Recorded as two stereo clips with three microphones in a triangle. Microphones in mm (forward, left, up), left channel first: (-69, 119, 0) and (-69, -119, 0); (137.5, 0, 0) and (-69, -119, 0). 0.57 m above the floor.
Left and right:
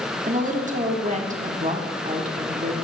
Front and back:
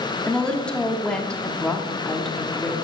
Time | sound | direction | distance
0.3 | a woman speaking | 55° right | 1.2 m